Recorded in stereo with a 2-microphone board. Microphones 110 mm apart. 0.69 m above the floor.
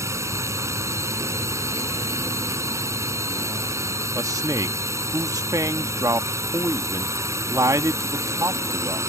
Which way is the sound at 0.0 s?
25° right (ahead or behind).